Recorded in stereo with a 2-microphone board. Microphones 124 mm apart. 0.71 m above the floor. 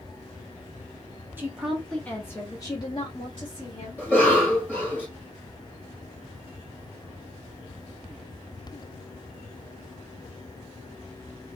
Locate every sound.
1.4 s a woman speaking: 15° right (ahead or behind), 0.8 m; by 4.7 s 55° left (ahead or behind), 2 m
4.0 s a cough: 15° left (ahead or behind), 1.6 m